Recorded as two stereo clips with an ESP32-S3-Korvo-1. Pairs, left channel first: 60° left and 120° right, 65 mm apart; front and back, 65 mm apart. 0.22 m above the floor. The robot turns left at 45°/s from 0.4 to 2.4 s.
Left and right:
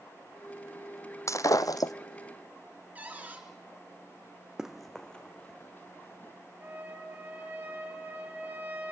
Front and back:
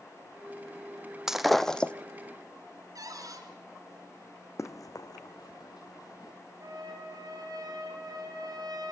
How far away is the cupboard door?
About 3.5 m.